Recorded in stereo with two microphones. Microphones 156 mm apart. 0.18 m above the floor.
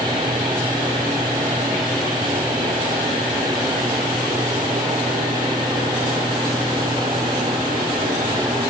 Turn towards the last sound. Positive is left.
No sound to turn to.